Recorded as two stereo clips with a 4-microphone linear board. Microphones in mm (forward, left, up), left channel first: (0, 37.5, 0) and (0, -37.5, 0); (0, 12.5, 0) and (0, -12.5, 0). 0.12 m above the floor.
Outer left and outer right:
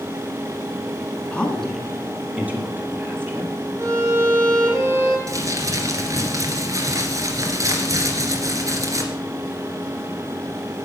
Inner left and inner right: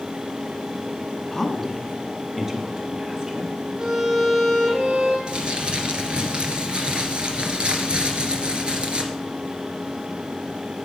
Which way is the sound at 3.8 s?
40° right (ahead or behind).